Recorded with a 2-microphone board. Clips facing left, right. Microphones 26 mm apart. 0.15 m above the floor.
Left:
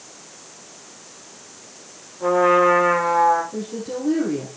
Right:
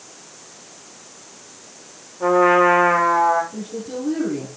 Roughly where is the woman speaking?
Left.